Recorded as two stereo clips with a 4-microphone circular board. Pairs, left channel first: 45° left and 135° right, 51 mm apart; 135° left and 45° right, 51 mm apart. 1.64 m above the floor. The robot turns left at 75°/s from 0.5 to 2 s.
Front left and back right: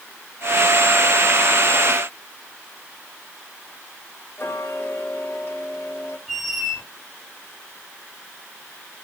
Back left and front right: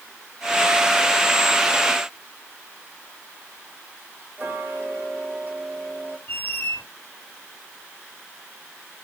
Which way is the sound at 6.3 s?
140° left.